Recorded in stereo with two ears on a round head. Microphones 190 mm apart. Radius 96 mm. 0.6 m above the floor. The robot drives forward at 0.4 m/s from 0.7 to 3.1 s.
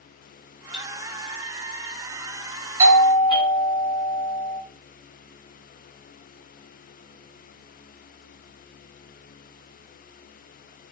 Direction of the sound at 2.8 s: 45° right (ahead or behind).